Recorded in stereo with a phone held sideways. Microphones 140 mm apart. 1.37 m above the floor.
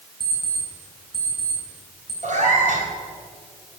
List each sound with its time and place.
0.2 s an alarm clock: 30° left (ahead or behind), 4.5 m
2.2 s a cat meowing: 60° right (ahead or behind), 3 m